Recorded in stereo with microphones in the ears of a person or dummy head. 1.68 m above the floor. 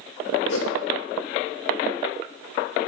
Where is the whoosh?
80° left, 0.9 m.